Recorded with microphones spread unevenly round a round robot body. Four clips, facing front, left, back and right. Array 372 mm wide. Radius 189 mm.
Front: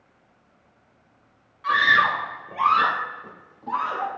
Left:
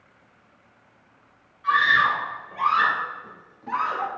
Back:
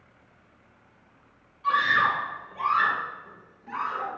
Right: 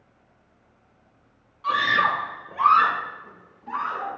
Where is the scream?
55° right, 1.5 m; by 4.1 s 45° left, 1.3 m.